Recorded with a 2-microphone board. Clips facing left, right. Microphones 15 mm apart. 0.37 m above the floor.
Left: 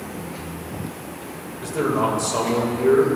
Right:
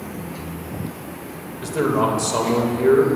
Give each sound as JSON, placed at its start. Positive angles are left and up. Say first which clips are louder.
{"t": 1.6, "sound": "a man speaking", "louder": "right 2 dB", "side_deg": -25, "distance_m": 1.2}